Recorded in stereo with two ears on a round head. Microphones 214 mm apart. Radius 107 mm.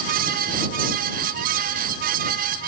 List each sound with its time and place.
Only background noise.